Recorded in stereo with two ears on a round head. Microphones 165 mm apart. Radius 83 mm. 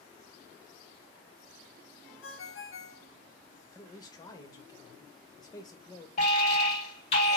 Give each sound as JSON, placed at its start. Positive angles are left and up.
{"t": 2.2, "sound": "a ringtone", "side_deg": 70, "distance_m": 0.7}
{"t": 3.7, "sound": "a man speaking", "side_deg": 20, "distance_m": 0.6}
{"t": 6.2, "sound": "an alarm", "side_deg": 35, "distance_m": 1.8}